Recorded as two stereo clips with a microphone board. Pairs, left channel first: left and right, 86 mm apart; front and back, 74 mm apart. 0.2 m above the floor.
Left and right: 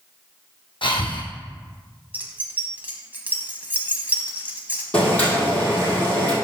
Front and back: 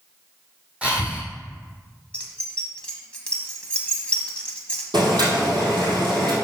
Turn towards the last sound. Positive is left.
turn(degrees=165)